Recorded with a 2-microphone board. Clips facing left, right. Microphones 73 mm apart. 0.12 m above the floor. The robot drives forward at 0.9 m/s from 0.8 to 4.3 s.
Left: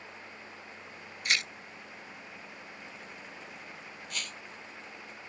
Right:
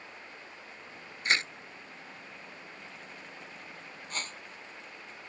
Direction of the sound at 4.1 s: 35° right (ahead or behind).